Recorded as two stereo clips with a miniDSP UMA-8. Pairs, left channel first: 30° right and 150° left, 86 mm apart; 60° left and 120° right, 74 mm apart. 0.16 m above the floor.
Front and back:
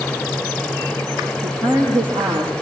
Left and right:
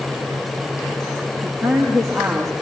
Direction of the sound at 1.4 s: 140° left.